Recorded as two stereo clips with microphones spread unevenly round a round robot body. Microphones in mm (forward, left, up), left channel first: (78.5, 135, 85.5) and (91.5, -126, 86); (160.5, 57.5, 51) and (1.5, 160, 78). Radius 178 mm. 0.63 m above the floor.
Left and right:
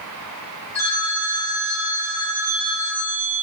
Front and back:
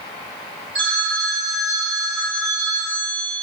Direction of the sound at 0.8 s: 160° left.